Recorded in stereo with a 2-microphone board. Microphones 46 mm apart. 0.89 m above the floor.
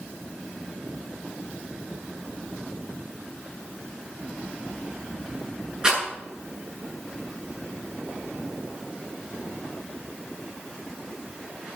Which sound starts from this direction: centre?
A rattle, at 5.8 s.